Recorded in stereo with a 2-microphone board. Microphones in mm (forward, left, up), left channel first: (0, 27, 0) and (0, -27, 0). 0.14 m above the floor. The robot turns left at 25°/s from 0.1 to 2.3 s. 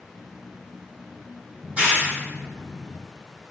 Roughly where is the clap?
Right.